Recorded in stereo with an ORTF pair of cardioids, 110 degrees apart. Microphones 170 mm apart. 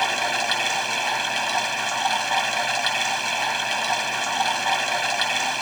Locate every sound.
0.0 s running water: straight ahead